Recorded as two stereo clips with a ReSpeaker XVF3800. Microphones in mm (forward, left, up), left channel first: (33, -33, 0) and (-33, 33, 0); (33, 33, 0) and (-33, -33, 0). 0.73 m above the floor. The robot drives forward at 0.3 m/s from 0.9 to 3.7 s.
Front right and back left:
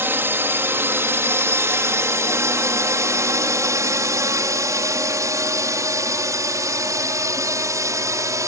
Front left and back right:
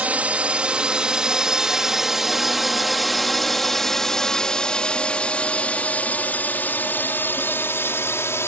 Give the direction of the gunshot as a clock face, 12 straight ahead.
No gunshot in this recording.